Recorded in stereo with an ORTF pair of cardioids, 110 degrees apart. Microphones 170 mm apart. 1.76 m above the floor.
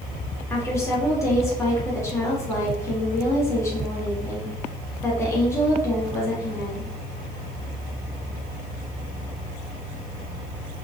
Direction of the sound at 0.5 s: 15° left.